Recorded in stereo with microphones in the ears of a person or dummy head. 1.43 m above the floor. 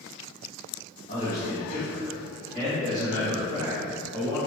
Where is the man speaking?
40° left (ahead or behind), 1.7 m; by 4.4 s 5° right (ahead or behind), 2.5 m.